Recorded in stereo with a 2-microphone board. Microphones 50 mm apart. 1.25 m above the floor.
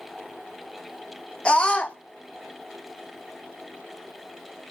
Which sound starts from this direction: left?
A scream, at 1.4 s.